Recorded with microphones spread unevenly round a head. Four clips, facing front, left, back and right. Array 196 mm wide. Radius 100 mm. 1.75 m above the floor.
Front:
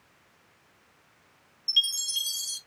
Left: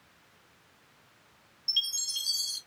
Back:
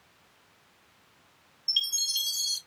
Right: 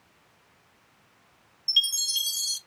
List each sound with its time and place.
1.7 s a chime: 70° right, 0.7 m